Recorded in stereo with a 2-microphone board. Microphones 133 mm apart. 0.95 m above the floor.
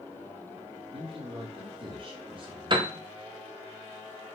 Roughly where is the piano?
Right.